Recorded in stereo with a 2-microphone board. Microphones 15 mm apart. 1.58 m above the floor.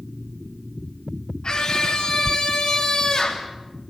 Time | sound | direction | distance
1.4 | a scream | 60° left (ahead or behind) | 5 m